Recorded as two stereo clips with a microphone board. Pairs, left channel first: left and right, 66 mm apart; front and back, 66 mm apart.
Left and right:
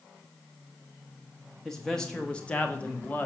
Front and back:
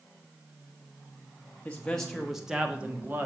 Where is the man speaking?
10° left, 1.2 m; by 3.3 s 140° left, 1.4 m.